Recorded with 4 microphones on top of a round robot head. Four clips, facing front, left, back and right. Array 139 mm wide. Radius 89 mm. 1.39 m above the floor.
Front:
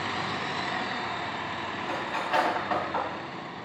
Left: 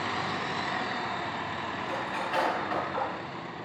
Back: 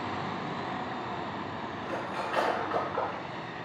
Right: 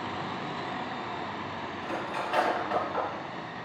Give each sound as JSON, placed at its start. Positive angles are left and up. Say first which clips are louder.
{"t": 1.8, "sound": "cutlery clinking", "louder": "right 2 dB, front 2 dB", "azimuth_deg": -15, "distance_m": 5.5}